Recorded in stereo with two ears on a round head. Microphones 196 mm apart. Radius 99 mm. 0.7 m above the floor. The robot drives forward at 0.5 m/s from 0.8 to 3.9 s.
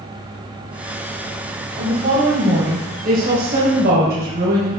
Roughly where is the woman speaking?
Right.